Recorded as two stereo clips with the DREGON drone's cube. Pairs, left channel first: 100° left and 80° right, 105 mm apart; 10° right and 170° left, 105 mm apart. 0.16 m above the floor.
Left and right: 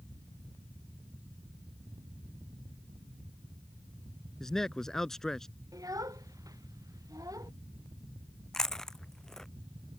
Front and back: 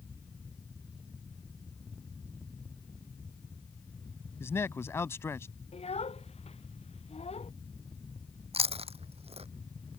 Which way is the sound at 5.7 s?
20° right.